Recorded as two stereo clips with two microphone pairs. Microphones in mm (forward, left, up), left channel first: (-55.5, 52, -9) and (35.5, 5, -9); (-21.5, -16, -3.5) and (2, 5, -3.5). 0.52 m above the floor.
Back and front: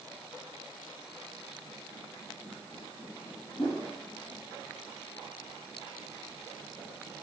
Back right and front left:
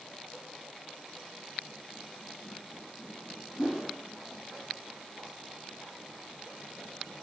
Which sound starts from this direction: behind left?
A whoosh, at 3.6 s.